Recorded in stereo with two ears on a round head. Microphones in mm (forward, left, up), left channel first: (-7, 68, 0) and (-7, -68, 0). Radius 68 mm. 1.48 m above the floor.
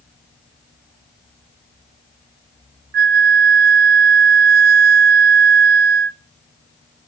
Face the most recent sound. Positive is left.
turn(degrees=-65)  # may be behind; listen again after turning